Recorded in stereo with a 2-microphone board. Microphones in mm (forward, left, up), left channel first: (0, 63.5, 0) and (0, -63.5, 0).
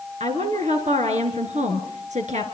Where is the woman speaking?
65° right (ahead or behind), 4.5 m.